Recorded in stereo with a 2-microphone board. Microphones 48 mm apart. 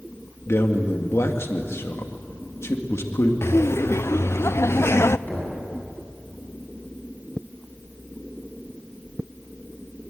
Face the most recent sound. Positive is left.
turn(degrees=35)  # may be behind; listen again after turning